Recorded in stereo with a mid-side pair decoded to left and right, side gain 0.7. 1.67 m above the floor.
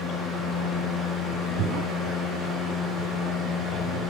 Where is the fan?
20° left, 2 m.